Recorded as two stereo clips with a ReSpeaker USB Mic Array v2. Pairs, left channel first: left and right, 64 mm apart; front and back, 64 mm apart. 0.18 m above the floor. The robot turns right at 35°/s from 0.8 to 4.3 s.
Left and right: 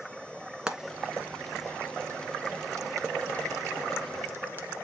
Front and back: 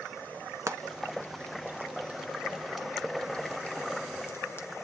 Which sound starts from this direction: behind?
Frying, at 0.7 s.